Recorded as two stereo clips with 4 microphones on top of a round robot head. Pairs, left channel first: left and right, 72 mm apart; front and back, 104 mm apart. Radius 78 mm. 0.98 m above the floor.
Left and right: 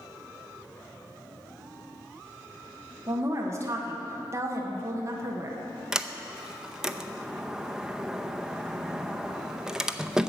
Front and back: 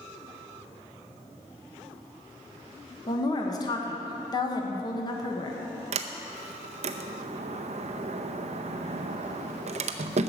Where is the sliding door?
170° right, 0.7 m.